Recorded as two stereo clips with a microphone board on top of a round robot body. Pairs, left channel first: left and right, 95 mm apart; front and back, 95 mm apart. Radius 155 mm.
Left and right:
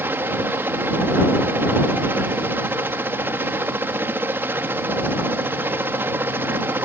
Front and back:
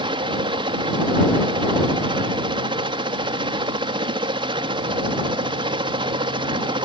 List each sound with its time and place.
0.0 s a helicopter: 155° right